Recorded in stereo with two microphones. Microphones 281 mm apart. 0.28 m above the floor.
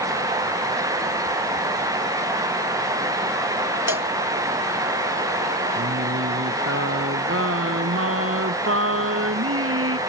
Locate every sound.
3.9 s a cowbell: 70° left (ahead or behind)
5.8 s singing: 50° right (ahead or behind)